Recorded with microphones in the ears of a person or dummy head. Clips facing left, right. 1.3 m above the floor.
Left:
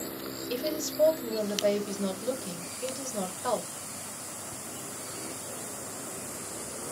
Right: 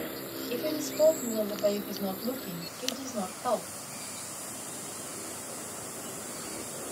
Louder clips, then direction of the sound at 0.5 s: Even; 25° left (ahead or behind).